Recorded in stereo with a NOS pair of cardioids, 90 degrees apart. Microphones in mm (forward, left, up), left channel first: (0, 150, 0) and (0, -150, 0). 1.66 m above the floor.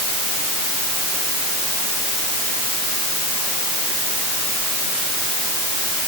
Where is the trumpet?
No trumpet in this recording.